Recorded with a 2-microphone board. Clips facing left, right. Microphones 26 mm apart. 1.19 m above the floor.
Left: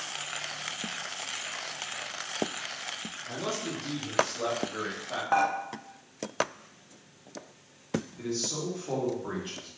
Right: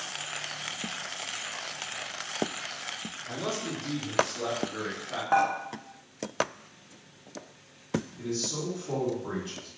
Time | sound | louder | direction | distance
3.3 | a man speaking | right 1 dB | 15° right (ahead or behind) | 0.7 m
5.3 | dishes clattering | right 1 dB | 10° left (ahead or behind) | 0.5 m
8.2 | a man speaking | even | 50° left (ahead or behind) | 1.5 m